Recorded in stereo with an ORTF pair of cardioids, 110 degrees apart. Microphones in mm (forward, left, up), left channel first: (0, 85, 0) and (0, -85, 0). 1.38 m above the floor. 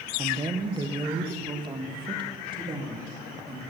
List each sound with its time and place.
0.2 s a woman speaking: 25° right, 0.9 m; by 3.6 s 30° right, 3 m